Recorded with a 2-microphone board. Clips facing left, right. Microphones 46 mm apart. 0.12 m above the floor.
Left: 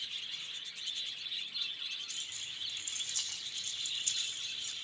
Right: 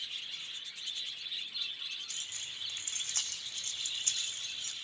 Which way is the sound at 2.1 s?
50° right (ahead or behind).